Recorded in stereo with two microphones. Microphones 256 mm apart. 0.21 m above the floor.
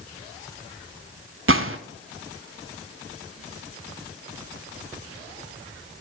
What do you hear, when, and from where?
1.5 s a gunshot: 55° right (ahead or behind), 0.8 m